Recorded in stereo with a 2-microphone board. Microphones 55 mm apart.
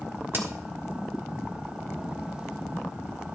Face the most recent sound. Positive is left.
turn(degrees=-45)  # may be behind; listen again after turning